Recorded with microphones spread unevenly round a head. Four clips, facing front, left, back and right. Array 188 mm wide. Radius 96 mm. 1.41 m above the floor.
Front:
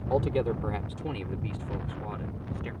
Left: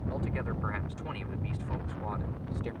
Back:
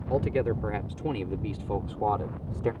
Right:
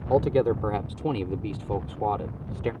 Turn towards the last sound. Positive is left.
turn(degrees=-140)